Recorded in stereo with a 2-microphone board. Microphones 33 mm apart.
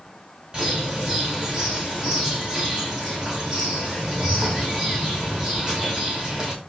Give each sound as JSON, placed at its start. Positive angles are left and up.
{"t": 0.5, "sound": "a bird", "side_deg": -20, "distance_m": 5.5}